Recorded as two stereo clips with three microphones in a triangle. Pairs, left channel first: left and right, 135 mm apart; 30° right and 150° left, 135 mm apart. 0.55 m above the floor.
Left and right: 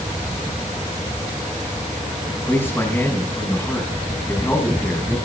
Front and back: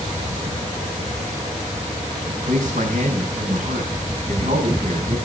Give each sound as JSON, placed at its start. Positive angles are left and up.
{"t": 2.3, "sound": "a man speaking", "azimuth_deg": 165, "distance_m": 5.0}